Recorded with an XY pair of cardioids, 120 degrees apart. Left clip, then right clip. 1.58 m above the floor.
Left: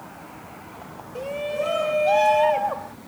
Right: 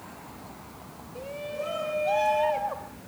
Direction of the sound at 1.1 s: 45° left.